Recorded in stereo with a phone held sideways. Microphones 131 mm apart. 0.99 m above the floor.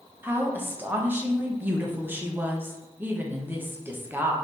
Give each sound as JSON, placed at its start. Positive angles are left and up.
{"t": 0.2, "sound": "a woman speaking", "side_deg": -15, "distance_m": 0.8}